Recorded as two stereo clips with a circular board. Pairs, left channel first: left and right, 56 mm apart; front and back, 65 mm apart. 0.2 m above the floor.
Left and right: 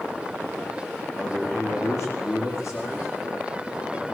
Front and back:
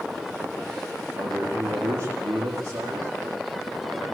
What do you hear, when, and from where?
1.1 s a man speaking: 130° left, 7 m